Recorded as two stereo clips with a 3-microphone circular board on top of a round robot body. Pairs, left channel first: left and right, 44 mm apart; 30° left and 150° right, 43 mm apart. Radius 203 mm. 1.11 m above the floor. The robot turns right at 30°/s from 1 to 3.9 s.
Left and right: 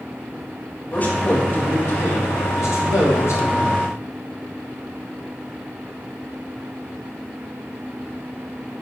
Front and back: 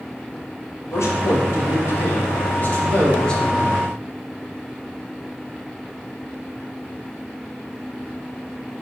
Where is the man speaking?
35° left, 3 m; by 3.8 s 120° left, 3 m.